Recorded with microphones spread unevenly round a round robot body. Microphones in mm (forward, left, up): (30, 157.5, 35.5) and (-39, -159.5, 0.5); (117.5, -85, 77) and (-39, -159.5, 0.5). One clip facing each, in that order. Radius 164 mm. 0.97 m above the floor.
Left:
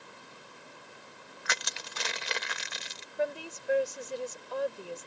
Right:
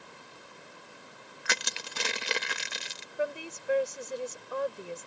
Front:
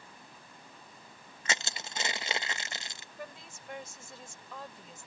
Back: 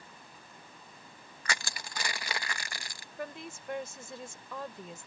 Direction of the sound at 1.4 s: 50° right.